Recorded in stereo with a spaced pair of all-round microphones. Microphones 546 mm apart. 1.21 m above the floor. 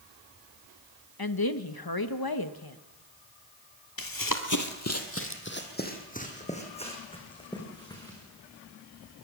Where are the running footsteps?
40° left (ahead or behind), 1.5 m; by 8.2 s 5° left (ahead or behind), 6 m.